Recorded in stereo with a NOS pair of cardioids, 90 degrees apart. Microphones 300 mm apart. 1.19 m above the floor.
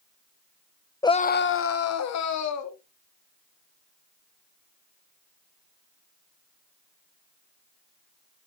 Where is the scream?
10° left, 0.8 m; by 2.8 s 65° left, 2.5 m.